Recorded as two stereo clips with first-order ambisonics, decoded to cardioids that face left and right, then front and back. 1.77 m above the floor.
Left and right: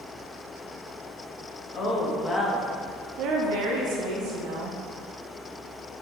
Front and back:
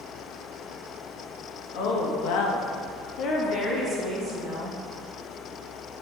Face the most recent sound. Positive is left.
turn(degrees=-95)